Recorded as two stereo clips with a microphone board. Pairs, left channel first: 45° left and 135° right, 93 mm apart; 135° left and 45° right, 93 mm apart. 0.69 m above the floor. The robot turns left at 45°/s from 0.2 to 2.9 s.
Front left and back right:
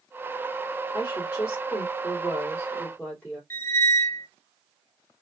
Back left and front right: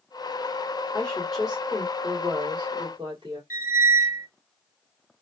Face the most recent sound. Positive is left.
turn(degrees=0)